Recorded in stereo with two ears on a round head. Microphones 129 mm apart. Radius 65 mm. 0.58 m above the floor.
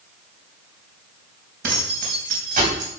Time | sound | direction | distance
1.6 | keys jangling | 75° right (ahead or behind) | 3 m